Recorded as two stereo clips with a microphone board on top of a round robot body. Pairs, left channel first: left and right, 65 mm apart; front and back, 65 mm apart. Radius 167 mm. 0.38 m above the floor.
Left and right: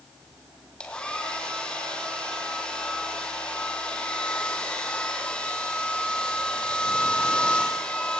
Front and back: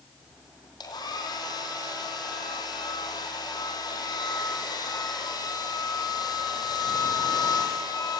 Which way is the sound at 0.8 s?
15° left.